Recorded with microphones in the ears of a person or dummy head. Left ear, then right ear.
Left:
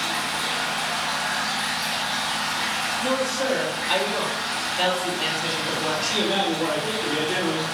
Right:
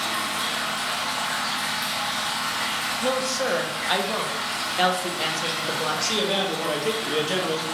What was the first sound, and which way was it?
Running water, 55° right (ahead or behind).